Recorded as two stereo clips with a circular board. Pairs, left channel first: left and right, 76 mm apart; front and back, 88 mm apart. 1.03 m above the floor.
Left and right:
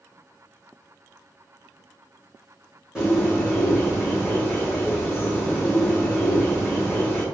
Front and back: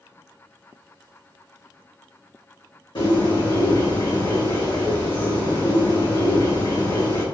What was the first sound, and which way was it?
A bird, 15° right.